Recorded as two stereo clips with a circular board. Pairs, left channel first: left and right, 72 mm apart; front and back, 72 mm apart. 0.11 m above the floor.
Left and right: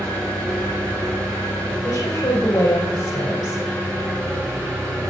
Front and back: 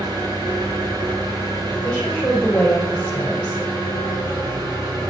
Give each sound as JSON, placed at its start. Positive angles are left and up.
{"t": 0.0, "sound": "an engine running", "azimuth_deg": 165, "distance_m": 3.5}
{"t": 1.8, "sound": "a woman speaking", "azimuth_deg": 70, "distance_m": 5.5}